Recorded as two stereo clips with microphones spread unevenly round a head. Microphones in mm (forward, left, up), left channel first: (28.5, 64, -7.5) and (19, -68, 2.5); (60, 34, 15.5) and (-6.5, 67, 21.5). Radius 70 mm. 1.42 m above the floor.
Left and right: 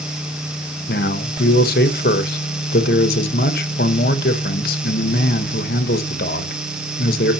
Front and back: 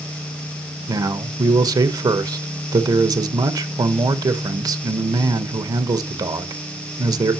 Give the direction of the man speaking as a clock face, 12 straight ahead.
8 o'clock.